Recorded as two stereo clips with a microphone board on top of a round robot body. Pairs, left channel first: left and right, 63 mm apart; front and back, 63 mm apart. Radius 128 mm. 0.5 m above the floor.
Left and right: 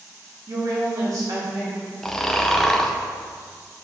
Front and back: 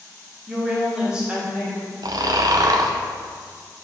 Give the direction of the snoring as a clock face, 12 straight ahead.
6 o'clock.